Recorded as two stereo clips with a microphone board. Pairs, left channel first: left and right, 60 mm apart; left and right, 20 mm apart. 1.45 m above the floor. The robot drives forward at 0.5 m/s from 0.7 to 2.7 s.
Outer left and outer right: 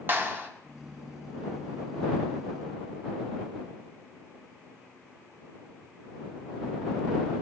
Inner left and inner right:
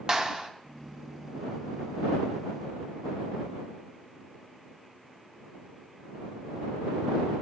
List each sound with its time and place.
0.1 s a clap: 40° right (ahead or behind), 1.1 m